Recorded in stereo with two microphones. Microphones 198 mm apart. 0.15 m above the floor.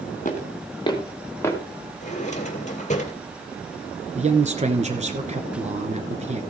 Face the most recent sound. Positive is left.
turn(degrees=-35)  # may be behind; listen again after turning